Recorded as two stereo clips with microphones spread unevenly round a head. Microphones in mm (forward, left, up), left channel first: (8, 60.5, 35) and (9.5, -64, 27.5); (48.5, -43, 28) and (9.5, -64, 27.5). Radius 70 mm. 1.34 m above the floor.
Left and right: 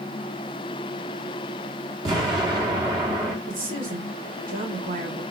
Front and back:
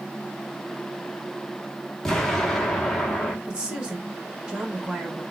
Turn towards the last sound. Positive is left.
turn(degrees=-85)